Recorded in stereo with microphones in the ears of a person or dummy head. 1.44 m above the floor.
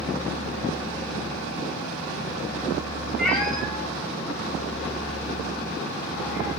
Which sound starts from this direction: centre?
A cat meowing, at 3.2 s.